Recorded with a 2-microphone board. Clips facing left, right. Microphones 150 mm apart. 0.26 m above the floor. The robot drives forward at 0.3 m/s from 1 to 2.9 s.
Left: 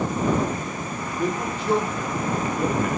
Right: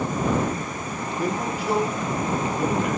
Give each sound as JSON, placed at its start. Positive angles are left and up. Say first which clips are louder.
{"t": 1.2, "sound": "a man speaking", "louder": "even", "side_deg": -5, "distance_m": 6.5}